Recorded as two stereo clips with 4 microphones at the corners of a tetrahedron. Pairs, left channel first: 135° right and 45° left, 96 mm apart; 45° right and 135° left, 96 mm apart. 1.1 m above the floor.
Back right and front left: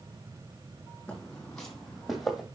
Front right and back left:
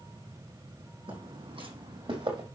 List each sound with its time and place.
1.1 s footsteps: 145° left, 3.5 m; by 2.5 s 135° left, 2.5 m